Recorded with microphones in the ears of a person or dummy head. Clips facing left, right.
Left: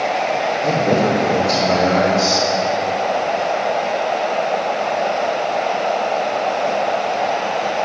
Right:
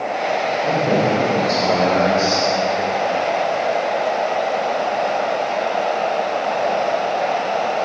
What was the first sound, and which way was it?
A man speaking, 15° left (ahead or behind).